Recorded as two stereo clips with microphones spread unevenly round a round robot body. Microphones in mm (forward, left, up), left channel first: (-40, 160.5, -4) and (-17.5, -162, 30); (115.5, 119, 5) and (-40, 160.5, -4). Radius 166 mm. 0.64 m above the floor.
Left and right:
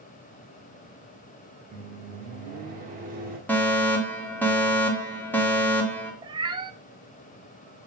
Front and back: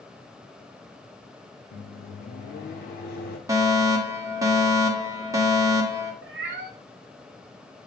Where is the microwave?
20° right, 1.7 m.